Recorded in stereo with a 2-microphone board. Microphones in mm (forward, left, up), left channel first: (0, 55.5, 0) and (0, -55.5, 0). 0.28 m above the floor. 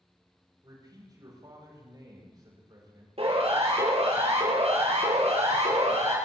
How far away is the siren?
About 9.5 m.